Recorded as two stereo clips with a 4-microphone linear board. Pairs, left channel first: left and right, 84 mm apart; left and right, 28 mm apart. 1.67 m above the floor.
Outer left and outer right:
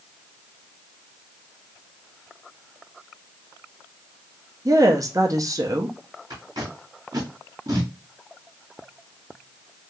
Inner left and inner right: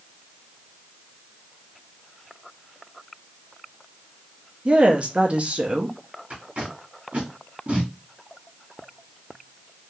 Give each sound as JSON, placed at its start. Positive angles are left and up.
{"t": 4.7, "sound": "a woman speaking", "side_deg": -45, "distance_m": 0.7}
{"t": 6.3, "sound": "tape being pulled", "side_deg": -50, "distance_m": 1.9}